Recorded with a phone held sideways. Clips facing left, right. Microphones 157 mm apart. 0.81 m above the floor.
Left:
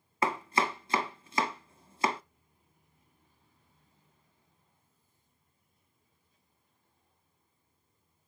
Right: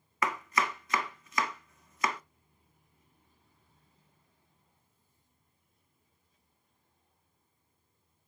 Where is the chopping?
30° left (ahead or behind), 0.8 m.